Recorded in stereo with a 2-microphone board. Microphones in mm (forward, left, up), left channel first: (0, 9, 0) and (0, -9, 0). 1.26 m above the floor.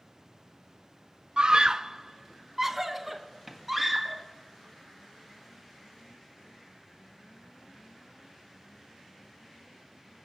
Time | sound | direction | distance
1.4 | a scream | 60° right (ahead or behind) | 0.5 m